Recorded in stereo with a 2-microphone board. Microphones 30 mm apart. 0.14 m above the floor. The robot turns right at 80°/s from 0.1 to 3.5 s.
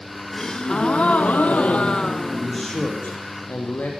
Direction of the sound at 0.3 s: 10° left.